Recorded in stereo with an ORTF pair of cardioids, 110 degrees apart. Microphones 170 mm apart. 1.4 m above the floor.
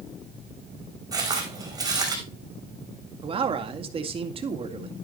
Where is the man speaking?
35° right, 2 m.